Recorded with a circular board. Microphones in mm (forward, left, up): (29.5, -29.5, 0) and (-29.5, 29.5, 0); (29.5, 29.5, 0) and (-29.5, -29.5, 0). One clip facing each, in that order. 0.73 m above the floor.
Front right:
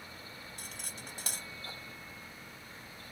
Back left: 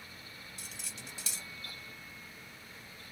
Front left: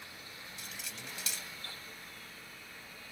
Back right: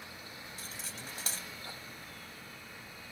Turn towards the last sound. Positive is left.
turn(degrees=-85)